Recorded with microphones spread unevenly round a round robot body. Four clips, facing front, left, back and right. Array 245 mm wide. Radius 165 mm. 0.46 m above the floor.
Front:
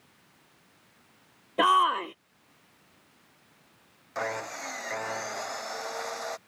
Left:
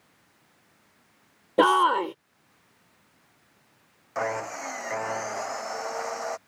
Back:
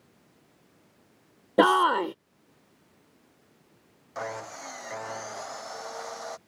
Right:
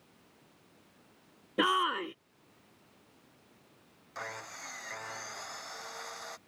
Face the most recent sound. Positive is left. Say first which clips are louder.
# left 14 dB, front 2 dB
turn(degrees=70)